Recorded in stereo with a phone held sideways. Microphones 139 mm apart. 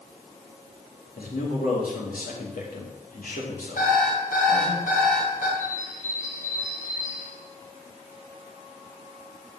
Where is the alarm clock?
70° left (ahead or behind), 3.5 m.